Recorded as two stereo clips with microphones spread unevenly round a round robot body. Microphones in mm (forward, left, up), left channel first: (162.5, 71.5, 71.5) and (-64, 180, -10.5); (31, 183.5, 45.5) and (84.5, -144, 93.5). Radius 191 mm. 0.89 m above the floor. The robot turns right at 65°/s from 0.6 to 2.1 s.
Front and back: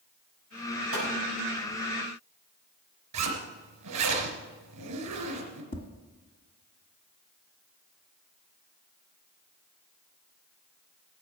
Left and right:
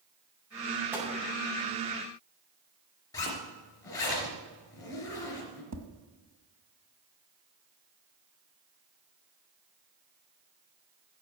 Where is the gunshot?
165° right, 6 m; by 1.1 s 155° right, 6 m.